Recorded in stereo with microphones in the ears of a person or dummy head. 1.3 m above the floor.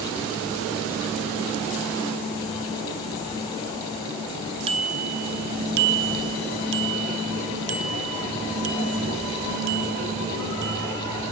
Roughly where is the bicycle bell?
Right.